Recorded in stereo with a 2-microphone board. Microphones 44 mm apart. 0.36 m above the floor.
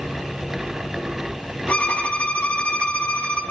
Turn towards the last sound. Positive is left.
turn(degrees=30)  # may be behind; listen again after turning